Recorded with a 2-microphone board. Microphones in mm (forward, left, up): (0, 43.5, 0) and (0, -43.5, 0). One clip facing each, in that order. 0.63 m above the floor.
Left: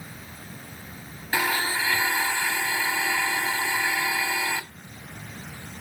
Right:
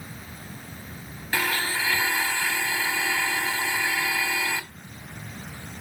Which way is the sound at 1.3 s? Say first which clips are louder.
Left 1 dB; 15° left (ahead or behind).